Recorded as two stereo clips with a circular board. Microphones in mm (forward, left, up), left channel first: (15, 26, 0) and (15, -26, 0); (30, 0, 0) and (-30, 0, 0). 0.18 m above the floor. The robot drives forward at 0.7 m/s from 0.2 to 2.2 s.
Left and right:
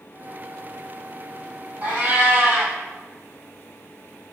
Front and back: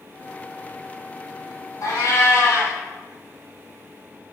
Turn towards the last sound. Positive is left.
turn(degrees=-45)